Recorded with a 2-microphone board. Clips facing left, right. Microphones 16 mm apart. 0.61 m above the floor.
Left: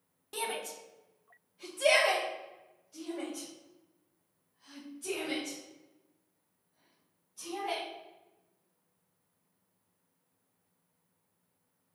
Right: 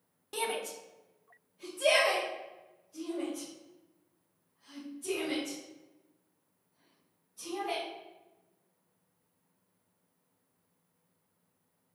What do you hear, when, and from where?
0.3 s a shout: 10° right (ahead or behind), 0.6 m; by 7.8 s 25° left (ahead or behind), 3.5 m